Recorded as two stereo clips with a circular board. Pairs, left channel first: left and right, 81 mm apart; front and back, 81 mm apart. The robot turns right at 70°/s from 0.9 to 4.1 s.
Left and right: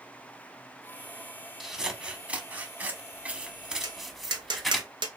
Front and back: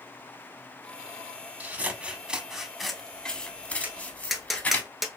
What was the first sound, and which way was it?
Scissors, 170° right.